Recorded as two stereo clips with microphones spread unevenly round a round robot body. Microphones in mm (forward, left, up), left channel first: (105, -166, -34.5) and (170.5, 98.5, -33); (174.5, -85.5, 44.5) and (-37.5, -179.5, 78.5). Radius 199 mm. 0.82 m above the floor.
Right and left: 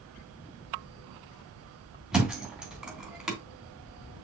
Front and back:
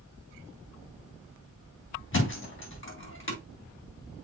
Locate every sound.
2.1 s a thud: 10° right, 3 m